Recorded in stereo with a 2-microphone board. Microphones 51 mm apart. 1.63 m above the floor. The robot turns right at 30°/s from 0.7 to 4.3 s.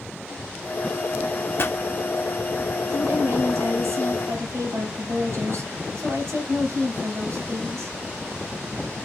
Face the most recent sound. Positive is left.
turn(degrees=-70)